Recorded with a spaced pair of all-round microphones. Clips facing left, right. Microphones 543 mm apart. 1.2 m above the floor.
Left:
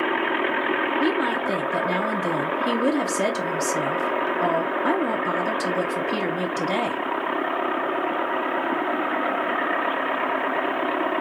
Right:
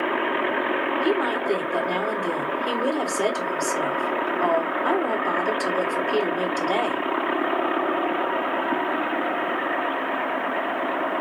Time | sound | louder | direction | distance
1.0 | a woman speaking | right 1 dB | 45° left (ahead or behind) | 1.0 m